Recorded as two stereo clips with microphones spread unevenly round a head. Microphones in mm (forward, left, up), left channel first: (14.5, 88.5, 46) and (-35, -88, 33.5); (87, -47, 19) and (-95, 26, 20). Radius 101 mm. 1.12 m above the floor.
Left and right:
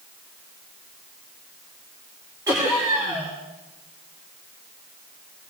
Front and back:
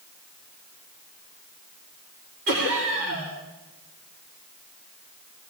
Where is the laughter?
Straight behind, 3.5 m.